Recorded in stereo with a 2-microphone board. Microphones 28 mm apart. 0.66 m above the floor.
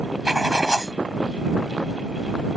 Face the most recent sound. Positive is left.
turn(degrees=-25)  # may be behind; listen again after turning